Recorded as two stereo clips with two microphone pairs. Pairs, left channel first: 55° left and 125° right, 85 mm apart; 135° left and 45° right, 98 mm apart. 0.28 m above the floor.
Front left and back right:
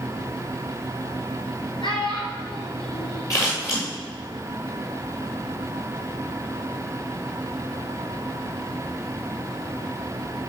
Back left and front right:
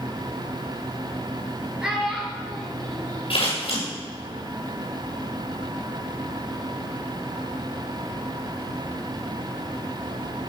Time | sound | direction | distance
1.8 | a child speaking | 30° left | 4.5 m
3.3 | scissors | 105° left | 6.5 m